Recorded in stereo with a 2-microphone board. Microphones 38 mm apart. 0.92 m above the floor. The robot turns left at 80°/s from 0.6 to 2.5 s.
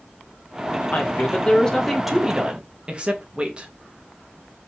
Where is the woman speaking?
80° left, 0.6 m; by 3.7 s 45° right, 0.6 m.